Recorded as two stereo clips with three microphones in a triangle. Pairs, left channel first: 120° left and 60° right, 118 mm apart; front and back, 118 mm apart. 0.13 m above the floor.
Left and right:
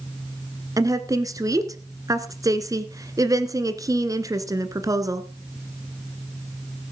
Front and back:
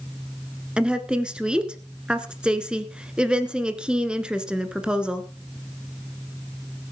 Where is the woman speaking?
100° right, 1.4 m.